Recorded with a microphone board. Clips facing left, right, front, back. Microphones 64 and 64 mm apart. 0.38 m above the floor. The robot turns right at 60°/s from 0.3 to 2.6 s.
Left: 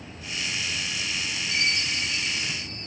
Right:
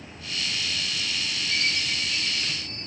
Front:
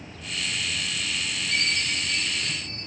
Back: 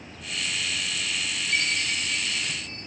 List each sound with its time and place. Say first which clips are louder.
1.5 s a chime: left 1 dB, even; 40° right, 4 m; by 2.9 s 25° left, 4 m